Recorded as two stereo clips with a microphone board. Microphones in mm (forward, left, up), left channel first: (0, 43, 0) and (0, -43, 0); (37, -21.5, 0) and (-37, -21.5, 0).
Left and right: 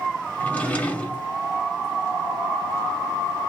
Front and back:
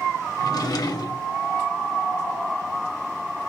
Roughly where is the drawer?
Ahead.